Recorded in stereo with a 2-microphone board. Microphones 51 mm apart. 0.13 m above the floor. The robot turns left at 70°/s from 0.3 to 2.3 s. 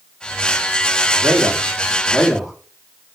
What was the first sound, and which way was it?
A man speaking, 80° right.